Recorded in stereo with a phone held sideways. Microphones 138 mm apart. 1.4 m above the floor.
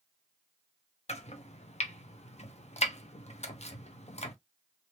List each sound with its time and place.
1.1 s chopping: 50° left (ahead or behind), 0.7 m